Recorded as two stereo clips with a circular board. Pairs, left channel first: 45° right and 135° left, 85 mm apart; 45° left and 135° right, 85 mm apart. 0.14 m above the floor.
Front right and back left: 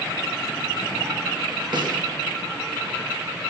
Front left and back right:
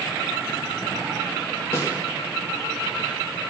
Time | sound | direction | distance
1.7 | a snare drum | 105° left | 7.5 m